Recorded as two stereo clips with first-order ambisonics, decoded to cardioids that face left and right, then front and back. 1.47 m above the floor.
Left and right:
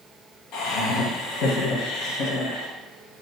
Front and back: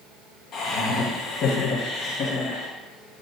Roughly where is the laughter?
Ahead left.